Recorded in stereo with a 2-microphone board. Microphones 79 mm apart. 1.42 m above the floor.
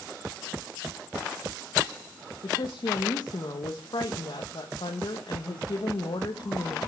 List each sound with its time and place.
2.4 s a woman speaking: 70° left (ahead or behind), 1.2 m